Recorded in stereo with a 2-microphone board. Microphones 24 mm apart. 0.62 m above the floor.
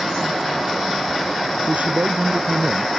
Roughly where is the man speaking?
Right.